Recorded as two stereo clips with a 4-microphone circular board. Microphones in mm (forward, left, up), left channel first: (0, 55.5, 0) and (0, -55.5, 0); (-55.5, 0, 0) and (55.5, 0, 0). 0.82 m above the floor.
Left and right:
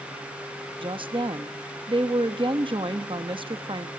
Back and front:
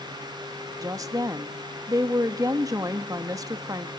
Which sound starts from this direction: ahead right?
A woman speaking, at 0.8 s.